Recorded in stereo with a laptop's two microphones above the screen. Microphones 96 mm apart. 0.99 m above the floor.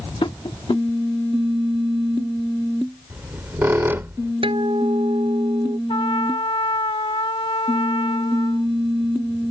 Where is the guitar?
65° right (ahead or behind).